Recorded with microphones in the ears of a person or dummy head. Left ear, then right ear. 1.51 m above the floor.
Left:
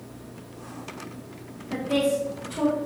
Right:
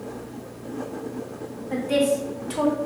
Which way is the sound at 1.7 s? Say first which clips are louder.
Right 2 dB; 10° right (ahead or behind).